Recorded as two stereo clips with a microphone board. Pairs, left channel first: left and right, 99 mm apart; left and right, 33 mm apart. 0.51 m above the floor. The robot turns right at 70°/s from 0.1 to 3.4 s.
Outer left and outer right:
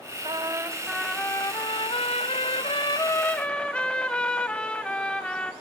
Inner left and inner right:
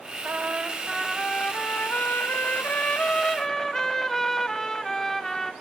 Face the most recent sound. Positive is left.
turn(degrees=170)